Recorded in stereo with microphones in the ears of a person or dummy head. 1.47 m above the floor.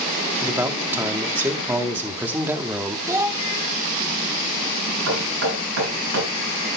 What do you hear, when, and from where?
0.4 s a man speaking: 15° right (ahead or behind), 1.2 m
3.1 s a child speaking: 15° right (ahead or behind), 0.6 m
5.1 s knocking: 65° right (ahead or behind), 7.5 m